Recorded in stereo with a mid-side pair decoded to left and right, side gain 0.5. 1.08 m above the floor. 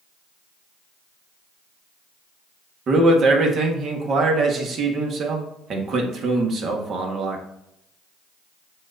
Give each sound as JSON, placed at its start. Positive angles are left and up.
{"t": 2.9, "sound": "a man speaking", "azimuth_deg": -50, "distance_m": 1.4}